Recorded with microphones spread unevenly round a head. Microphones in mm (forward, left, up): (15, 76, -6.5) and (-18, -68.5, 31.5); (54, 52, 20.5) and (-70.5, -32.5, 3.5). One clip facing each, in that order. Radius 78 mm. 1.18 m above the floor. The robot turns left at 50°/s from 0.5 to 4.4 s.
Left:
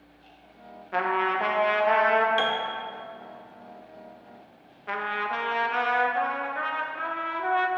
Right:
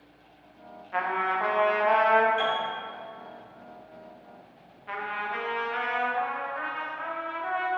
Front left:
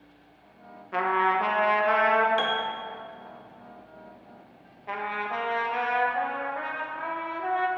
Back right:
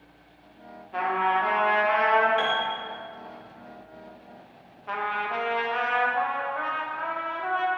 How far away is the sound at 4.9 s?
About 0.8 m.